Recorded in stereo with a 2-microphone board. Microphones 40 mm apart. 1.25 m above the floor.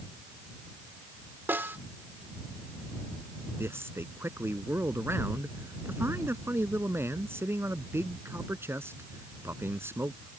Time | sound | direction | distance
1.5 | a snare drum | 65° right (ahead or behind) | ?
3.6 | a man speaking | 85° right | ?